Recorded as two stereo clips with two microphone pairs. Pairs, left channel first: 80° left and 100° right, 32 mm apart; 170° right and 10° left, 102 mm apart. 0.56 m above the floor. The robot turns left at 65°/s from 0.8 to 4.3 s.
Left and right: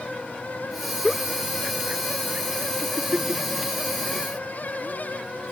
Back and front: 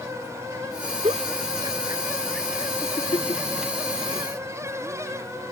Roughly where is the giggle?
Ahead.